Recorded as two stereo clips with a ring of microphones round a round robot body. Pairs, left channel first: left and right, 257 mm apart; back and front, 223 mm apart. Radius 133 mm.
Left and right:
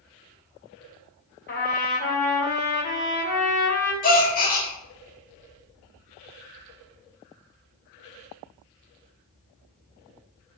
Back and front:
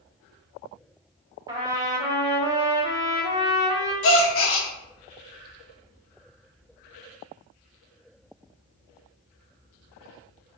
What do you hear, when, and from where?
1.5 s a trumpet: 65° left, 1.2 m
4.0 s a gasp: 150° left, 0.6 m